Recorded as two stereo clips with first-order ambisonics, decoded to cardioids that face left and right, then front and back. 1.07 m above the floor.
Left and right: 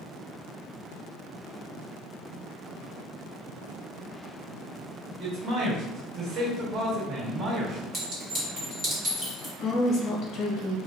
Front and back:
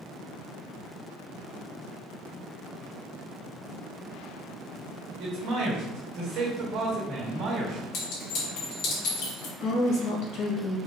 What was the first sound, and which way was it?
A man speaking, 145° right.